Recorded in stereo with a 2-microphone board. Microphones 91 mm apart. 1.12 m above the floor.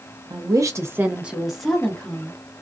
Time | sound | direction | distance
0.3 | a woman speaking | 50° right (ahead or behind) | 0.7 m